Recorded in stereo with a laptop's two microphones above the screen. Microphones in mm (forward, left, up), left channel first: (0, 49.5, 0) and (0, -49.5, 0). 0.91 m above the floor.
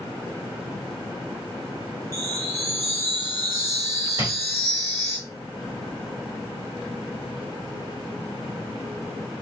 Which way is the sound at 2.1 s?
25° left (ahead or behind).